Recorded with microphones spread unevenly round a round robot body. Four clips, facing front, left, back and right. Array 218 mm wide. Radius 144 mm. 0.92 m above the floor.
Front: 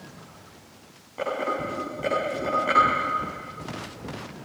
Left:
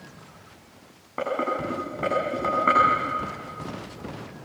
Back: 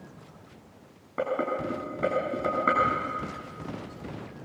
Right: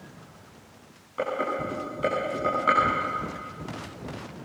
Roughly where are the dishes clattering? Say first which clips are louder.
Left 2 dB, front 1 dB; behind left.